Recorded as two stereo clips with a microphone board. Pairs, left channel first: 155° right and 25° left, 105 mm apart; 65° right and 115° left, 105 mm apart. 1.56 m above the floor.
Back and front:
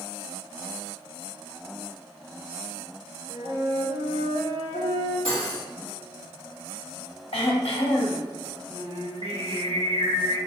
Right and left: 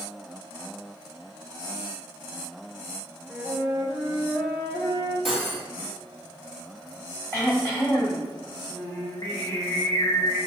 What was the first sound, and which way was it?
A flute, 25° left.